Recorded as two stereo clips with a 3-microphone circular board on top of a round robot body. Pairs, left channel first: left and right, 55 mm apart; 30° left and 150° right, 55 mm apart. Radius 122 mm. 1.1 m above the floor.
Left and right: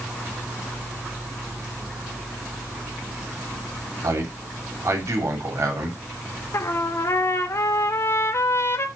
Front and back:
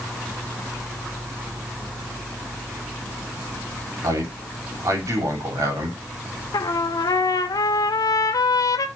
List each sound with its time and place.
4.0 s a man speaking: 125° right, 3 m
6.5 s a trumpet: 45° left, 0.7 m